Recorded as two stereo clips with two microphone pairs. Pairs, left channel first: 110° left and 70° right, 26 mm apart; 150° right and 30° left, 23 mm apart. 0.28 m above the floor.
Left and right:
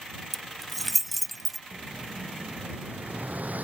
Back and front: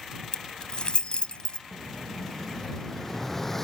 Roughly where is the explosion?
Right.